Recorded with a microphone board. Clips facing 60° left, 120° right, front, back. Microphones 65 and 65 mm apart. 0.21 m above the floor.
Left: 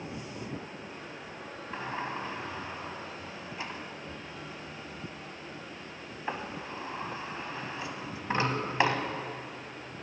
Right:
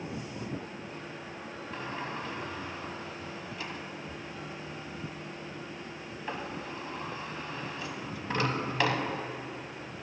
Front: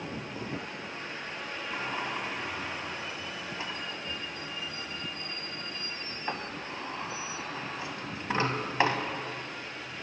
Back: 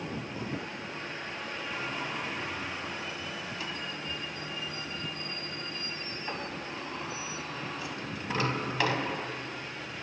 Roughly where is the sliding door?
Ahead left.